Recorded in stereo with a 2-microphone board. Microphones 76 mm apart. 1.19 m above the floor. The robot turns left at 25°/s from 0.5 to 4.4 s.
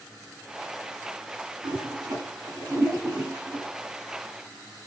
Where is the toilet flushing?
65° right (ahead or behind), 1.6 m; by 3.6 s 25° right (ahead or behind), 1.6 m.